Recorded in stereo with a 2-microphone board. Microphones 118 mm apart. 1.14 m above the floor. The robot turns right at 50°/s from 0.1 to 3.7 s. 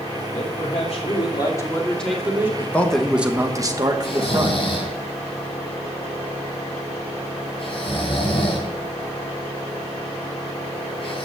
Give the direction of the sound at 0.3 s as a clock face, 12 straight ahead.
9 o'clock.